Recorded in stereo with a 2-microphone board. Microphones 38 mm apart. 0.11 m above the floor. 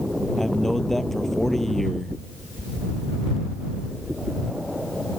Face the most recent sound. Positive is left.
turn(degrees=5)  # may be behind; listen again after turning